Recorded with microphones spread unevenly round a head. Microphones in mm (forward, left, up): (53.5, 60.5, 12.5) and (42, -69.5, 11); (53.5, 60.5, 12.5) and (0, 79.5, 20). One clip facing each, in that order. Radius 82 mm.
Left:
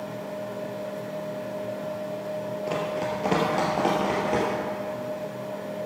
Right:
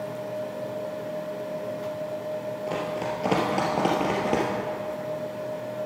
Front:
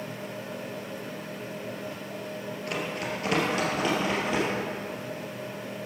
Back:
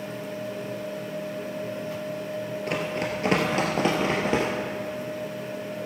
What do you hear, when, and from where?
2.7 s running footsteps: 165° left, 2 m; by 4.5 s 160° right, 2.5 m